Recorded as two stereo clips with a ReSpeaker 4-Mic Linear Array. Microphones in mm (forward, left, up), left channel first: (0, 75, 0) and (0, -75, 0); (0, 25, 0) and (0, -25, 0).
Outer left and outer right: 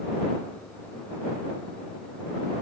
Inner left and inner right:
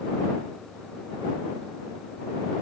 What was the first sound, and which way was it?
Only background noise.